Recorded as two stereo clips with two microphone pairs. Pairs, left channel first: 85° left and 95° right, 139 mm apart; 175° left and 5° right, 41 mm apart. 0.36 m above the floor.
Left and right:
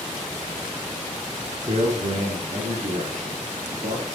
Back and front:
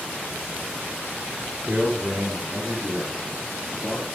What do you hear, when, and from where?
1.6 s a man speaking: 75° right, 4 m; by 4.0 s 95° right, 6.5 m